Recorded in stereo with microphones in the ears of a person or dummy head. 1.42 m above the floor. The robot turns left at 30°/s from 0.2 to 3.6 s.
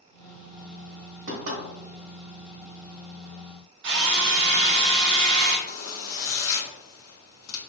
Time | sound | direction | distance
1.3 | knocking | 70° right (ahead or behind) | 1.8 m
3.8 | a drill | 55° right (ahead or behind) | 0.6 m
5.7 | a zipper | 80° left | 0.8 m